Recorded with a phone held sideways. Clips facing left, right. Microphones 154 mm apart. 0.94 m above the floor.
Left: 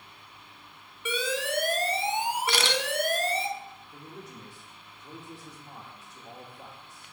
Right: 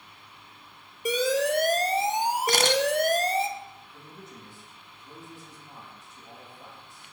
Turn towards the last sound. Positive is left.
turn(degrees=70)  # may be behind; listen again after turning